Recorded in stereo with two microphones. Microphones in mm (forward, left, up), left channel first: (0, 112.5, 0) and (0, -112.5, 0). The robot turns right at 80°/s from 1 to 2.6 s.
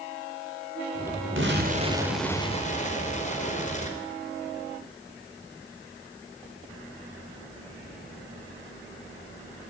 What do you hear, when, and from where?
1.4 s an explosion: 65° right, 4 m; by 4.0 s 35° left, 4 m